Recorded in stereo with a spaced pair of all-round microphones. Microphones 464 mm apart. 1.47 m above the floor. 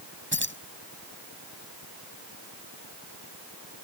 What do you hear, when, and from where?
0.3 s keys jangling: 25° right (ahead or behind)